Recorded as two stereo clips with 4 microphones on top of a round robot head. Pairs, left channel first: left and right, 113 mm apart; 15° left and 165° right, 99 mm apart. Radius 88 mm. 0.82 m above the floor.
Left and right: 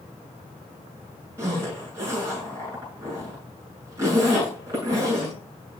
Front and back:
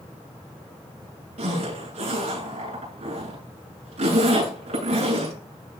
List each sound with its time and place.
1.4 s a zipper: 160° right, 8 m